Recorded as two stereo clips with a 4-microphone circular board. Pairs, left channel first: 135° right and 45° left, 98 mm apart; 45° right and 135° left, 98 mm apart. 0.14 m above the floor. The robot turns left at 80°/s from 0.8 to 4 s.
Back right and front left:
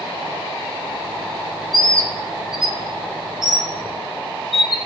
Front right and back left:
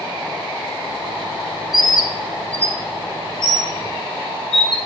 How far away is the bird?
About 0.8 m.